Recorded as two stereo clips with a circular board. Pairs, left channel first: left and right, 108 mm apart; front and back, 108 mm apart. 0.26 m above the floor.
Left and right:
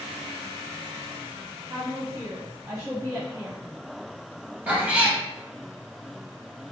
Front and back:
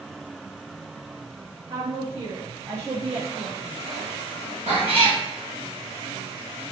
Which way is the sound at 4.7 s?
165° right.